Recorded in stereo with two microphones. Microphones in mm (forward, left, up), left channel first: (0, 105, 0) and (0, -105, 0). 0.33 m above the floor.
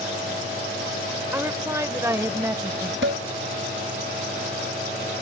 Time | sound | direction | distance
1.3 | a woman speaking | 10° right (ahead or behind) | ?
3.0 | dishes clattering | 65° right (ahead or behind) | ?